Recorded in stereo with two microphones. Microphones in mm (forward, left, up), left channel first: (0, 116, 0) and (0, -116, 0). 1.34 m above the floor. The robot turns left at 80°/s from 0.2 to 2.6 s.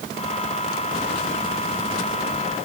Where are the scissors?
I don't hear scissors.